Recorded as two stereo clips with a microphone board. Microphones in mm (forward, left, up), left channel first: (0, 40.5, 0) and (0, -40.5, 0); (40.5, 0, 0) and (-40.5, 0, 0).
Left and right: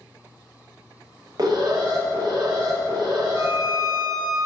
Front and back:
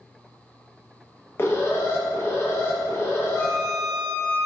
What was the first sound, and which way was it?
An alarm, 55° right.